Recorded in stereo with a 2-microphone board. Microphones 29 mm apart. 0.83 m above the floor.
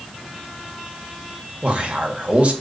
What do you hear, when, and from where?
1.6 s a man speaking: 55° right (ahead or behind), 1.6 m